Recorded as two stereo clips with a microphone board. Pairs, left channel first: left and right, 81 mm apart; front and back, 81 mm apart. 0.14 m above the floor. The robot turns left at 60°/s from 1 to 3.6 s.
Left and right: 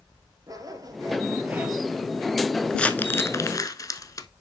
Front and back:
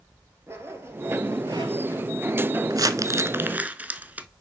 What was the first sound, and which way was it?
A zipper, 125° right.